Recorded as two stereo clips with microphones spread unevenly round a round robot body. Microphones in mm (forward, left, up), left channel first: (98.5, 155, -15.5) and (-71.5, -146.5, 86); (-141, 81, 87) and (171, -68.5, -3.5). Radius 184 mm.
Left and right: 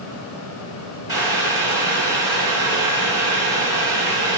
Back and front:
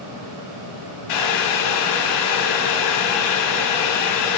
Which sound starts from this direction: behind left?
Boiling, at 1.1 s.